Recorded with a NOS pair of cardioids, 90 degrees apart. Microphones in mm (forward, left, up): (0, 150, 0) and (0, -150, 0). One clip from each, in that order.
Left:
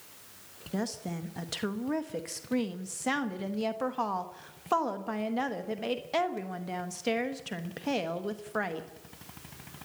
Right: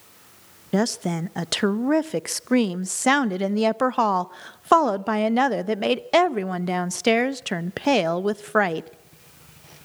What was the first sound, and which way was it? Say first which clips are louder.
A woman speaking: right 12 dB; 55° right.